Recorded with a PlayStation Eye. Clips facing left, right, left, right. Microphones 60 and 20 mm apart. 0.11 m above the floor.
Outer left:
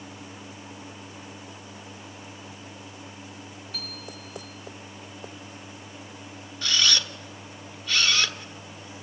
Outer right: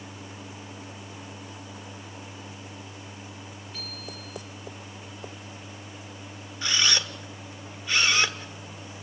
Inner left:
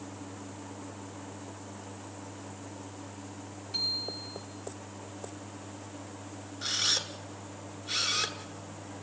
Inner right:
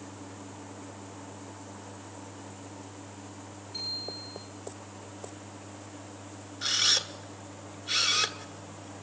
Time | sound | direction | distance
3.7 | a bicycle bell | 75° left (ahead or behind) | 10 m
6.6 | a camera shutter | 20° right (ahead or behind) | 1.3 m